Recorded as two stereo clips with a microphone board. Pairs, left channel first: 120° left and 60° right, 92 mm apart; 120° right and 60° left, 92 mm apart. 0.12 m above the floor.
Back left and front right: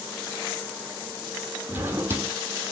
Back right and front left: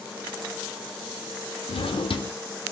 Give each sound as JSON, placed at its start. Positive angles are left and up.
{"t": 1.7, "sound": "a drawer", "azimuth_deg": -125, "distance_m": 0.9}